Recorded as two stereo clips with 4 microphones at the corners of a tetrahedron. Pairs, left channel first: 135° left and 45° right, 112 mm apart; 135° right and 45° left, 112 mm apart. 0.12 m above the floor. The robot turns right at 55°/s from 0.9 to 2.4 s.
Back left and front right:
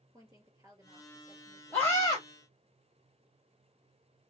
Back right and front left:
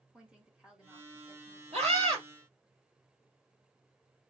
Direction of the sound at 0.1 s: 30° right.